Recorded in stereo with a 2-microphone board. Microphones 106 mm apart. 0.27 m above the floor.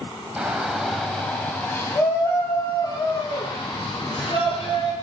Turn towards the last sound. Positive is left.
turn(degrees=50)  # may be behind; listen again after turning